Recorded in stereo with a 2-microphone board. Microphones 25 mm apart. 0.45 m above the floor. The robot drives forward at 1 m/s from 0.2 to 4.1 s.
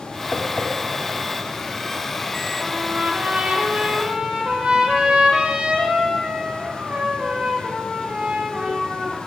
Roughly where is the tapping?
Left.